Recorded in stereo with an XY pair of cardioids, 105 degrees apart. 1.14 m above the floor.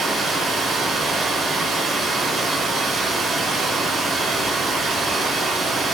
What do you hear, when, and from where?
0.0 s running water: 45° right, 2 m